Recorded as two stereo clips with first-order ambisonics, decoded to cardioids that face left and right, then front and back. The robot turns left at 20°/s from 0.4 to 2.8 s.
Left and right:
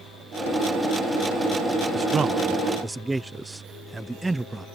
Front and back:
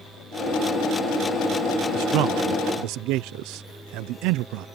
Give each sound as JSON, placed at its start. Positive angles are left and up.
{"t": 1.9, "sound": "a man speaking", "azimuth_deg": -155}